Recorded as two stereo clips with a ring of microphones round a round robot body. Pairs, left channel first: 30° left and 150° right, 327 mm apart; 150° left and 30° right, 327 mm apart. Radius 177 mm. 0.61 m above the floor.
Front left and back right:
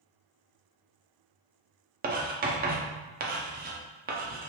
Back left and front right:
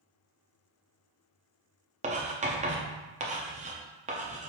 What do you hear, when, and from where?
2.0 s writing: 95° right, 0.7 m